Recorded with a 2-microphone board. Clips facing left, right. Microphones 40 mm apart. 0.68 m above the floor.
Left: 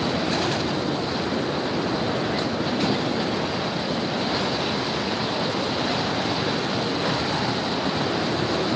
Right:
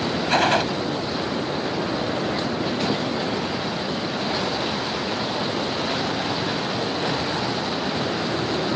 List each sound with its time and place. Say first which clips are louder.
0.3 s a gunshot: right 5 dB; 65° right (ahead or behind)